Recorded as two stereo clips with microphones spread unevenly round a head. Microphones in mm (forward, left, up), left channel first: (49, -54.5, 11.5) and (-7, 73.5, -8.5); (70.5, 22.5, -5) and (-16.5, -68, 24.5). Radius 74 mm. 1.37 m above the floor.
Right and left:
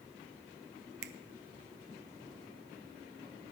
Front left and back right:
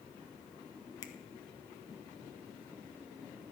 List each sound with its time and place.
1.0 s a finger snap: 110° left, 0.7 m